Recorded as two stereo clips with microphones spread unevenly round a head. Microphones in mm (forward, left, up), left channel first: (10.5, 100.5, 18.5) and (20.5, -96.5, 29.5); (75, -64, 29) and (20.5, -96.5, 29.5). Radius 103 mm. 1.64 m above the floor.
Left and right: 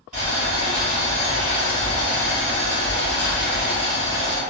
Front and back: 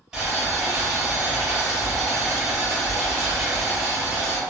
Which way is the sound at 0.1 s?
75° right.